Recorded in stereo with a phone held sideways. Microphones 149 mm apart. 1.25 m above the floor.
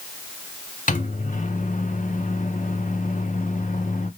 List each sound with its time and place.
0.9 s a microwave: 60° left (ahead or behind), 0.6 m